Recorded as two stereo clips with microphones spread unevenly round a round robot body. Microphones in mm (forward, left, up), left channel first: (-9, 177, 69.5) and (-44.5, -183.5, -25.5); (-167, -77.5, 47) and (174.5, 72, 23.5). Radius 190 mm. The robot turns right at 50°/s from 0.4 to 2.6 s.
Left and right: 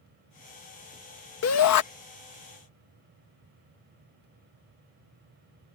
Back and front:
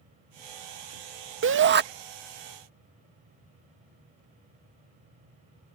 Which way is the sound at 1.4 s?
35° left.